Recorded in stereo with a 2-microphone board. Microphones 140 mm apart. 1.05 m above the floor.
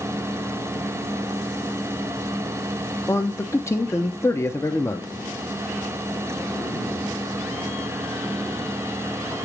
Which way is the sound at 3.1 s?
20° left (ahead or behind).